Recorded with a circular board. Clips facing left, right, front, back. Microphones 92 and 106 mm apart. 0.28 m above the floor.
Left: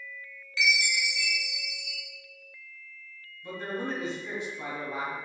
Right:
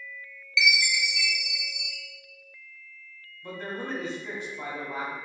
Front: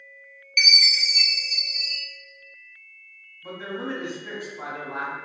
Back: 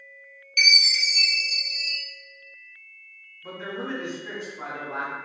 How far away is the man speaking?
About 1.4 m.